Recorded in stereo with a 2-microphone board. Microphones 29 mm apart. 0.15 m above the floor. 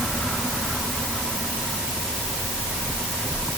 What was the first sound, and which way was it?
Only background noise.